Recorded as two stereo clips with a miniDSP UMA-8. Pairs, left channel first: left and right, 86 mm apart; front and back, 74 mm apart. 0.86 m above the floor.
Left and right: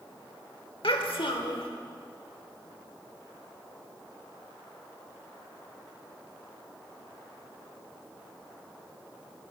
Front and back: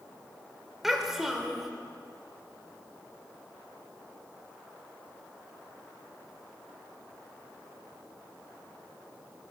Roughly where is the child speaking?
Left.